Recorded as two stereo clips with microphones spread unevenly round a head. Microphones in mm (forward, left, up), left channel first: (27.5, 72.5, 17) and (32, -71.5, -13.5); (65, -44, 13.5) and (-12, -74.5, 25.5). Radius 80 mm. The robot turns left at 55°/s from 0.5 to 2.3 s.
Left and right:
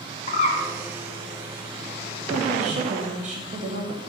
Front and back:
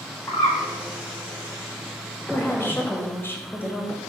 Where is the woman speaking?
45° right, 1.9 m.